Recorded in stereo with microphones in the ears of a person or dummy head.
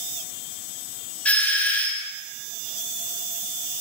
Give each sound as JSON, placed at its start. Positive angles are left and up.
{"t": 1.2, "sound": "a doorbell", "side_deg": 5, "distance_m": 0.7}